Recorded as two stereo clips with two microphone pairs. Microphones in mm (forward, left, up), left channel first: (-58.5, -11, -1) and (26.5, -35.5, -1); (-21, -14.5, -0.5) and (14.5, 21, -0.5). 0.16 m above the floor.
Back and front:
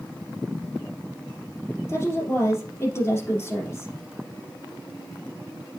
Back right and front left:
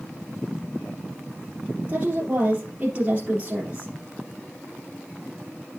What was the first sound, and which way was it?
A woman speaking, 105° left.